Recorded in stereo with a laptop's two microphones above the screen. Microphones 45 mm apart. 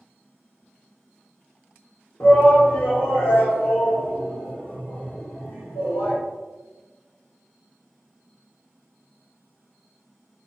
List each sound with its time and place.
2.2 s a shout: 60° left (ahead or behind), 1.3 m; by 6.2 s 80° left, 4 m